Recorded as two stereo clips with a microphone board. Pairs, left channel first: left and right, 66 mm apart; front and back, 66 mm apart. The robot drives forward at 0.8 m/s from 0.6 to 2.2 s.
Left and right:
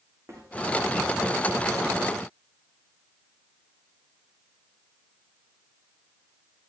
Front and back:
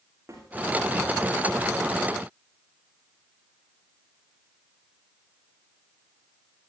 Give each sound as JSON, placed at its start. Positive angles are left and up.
{"t": 0.3, "sound": "a snare drum", "azimuth_deg": -135, "distance_m": 7.5}